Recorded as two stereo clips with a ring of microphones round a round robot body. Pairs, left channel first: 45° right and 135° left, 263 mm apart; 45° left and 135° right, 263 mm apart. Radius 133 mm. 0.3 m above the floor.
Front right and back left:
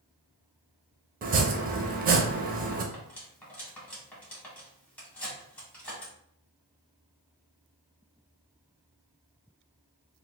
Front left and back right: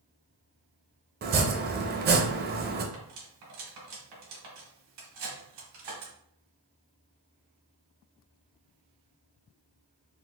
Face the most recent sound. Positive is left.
turn(degrees=-130)